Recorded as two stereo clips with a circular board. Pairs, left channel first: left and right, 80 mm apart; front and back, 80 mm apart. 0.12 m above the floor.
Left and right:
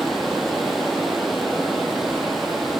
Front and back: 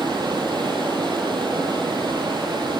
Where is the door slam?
I don't hear a door slam.